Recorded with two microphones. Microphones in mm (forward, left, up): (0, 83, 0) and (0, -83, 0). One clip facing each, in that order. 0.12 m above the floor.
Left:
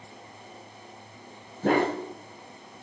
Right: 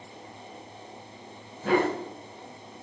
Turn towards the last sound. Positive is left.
turn(degrees=50)  # may be behind; listen again after turning